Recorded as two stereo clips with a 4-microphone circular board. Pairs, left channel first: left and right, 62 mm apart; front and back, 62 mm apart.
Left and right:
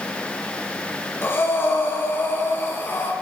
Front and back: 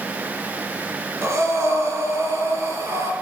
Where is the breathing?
140° left, 3 m.